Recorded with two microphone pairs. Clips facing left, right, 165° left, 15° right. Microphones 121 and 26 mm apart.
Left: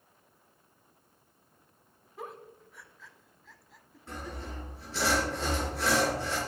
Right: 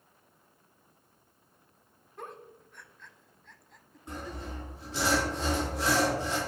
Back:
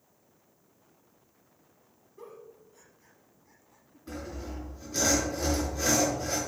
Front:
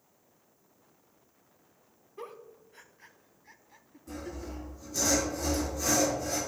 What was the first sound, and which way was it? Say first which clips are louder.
A giggle: left 1 dB, front 3 dB; 5° left.